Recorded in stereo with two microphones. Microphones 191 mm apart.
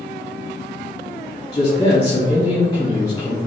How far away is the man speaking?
About 2.0 m.